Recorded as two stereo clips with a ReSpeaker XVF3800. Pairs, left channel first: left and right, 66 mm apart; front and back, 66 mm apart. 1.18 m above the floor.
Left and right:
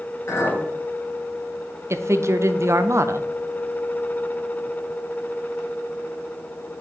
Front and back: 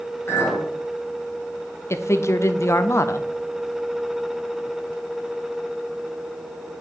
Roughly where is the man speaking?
Ahead right.